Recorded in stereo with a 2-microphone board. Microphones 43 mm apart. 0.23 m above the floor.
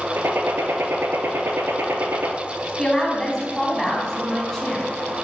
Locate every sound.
0.2 s a gunshot: 85° right, 0.8 m
2.8 s a woman speaking: 10° left (ahead or behind), 1.5 m